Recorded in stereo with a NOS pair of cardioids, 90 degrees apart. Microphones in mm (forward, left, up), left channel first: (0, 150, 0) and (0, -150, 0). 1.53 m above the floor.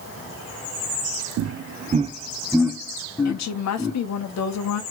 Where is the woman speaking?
65° left, 1.4 m.